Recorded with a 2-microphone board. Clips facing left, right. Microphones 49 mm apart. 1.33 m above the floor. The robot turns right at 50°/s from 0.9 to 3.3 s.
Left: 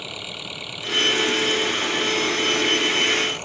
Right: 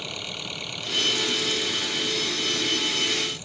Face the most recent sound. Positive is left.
turn(degrees=125)